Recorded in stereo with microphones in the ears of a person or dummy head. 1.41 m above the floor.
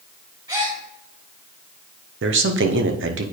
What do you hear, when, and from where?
0.5 s a gasp: 20° right (ahead or behind), 2.5 m
2.2 s a man speaking: 60° right (ahead or behind), 0.8 m